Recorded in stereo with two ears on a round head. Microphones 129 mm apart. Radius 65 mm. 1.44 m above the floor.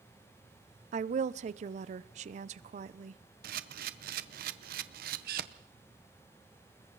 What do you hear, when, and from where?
0.9 s a woman speaking: 55° right (ahead or behind), 0.8 m
3.4 s a camera shutter: 65° right (ahead or behind), 1.0 m